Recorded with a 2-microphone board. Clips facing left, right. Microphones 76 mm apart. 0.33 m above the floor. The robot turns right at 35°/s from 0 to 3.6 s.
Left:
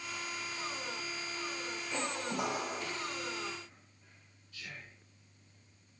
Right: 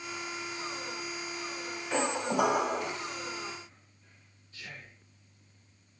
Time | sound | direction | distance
1.9 | a squeak | 95° right | 0.5 m
4.5 | whispering | 35° right (ahead or behind) | 4.5 m